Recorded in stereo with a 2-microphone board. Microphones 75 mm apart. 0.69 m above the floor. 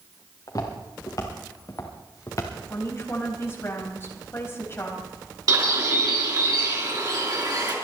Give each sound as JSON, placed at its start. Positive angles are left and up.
{"t": 0.5, "sound": "footsteps", "side_deg": 45, "distance_m": 4.0}
{"t": 2.7, "sound": "a woman speaking", "side_deg": 30, "distance_m": 3.5}
{"t": 5.5, "sound": "a bird", "side_deg": -55, "distance_m": 4.5}